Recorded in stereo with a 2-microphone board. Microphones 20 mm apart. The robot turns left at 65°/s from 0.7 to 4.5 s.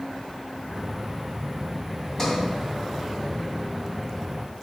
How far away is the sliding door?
About 1.1 m.